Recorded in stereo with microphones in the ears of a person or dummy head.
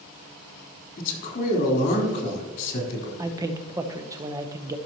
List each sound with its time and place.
1.0 s a man speaking: 45° left (ahead or behind), 4 m
3.2 s a man speaking: 20° right (ahead or behind), 0.8 m